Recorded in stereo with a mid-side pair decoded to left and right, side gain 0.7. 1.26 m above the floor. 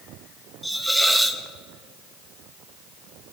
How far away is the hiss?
About 0.7 m.